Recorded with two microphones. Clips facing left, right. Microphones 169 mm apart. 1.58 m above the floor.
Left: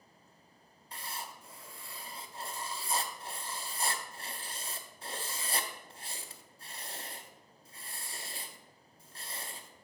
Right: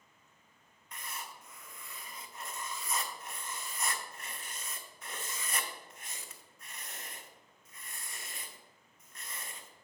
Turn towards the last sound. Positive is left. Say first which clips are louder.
# left 2 dB
turn(degrees=30)  # may be behind; listen again after turning